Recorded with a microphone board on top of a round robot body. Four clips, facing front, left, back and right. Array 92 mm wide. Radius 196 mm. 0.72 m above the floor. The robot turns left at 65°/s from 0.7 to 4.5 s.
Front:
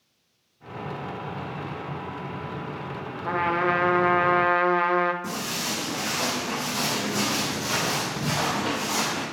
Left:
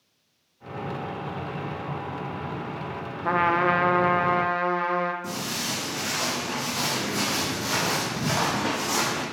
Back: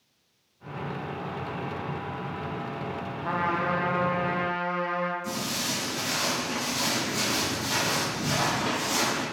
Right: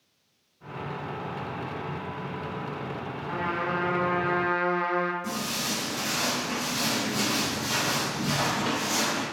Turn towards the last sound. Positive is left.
turn(degrees=85)